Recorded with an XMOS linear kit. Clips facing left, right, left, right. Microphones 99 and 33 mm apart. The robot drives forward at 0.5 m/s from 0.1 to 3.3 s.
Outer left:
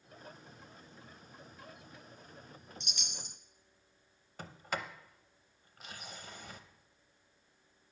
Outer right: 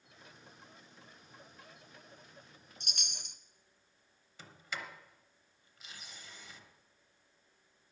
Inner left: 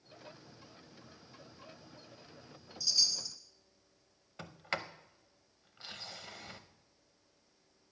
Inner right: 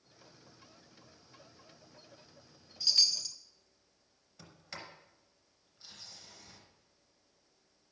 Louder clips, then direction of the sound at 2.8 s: Outer left 2 dB, inner right 3 dB; 45° right (ahead or behind).